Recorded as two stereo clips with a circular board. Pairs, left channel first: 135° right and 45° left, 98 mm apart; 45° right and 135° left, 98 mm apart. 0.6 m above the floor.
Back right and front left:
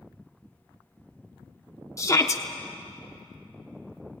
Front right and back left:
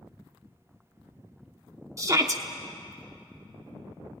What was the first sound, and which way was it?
A shout, straight behind.